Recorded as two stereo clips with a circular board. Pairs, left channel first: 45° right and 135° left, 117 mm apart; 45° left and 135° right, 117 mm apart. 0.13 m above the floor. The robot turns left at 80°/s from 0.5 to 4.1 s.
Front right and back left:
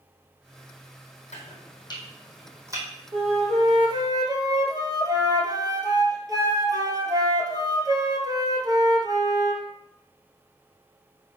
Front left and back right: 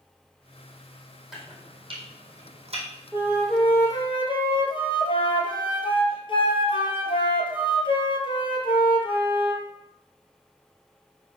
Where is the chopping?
50° right, 2 m; by 2.9 s 170° right, 2 m.